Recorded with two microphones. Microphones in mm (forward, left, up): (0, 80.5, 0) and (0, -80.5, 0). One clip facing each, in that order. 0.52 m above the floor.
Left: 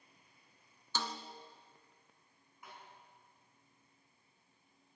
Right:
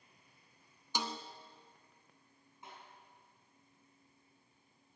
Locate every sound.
0.9 s a snare drum: 15° right (ahead or behind), 0.9 m
2.6 s a snare drum: 25° right (ahead or behind), 5.5 m